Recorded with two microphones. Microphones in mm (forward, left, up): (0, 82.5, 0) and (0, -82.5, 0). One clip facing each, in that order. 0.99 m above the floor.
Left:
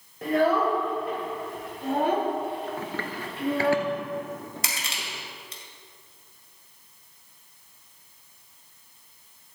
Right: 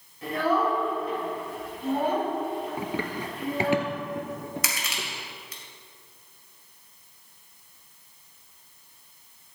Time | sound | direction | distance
0.2 | a child speaking | 65° left (ahead or behind) | 3 m
2.8 | running footsteps | 15° right (ahead or behind) | 1.0 m
4.6 | crushing | 30° left (ahead or behind) | 2.0 m